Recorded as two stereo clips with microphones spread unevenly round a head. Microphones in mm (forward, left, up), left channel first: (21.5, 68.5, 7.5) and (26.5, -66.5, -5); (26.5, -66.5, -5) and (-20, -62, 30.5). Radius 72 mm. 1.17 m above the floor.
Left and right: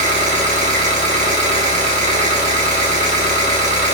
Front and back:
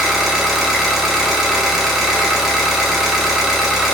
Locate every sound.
0.0 s an engine running: 130° right, 1.0 m